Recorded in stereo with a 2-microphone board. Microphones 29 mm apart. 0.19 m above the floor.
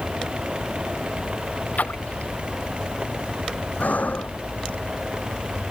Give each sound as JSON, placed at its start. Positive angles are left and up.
{"t": 1.8, "sound": "a splash", "side_deg": 70}
{"t": 3.8, "sound": "breathing", "side_deg": 65}